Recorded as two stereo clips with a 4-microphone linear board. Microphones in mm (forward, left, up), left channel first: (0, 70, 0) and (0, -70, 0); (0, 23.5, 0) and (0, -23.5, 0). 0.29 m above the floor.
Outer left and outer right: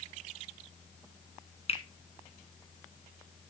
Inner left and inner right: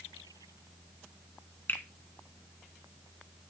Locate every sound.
1.7 s a finger snap: 45° left (ahead or behind), 1.9 m